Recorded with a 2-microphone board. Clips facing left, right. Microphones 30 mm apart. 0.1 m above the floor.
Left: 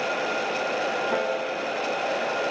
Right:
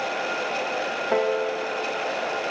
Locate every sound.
1.1 s a piano: 70° right (ahead or behind), 4 m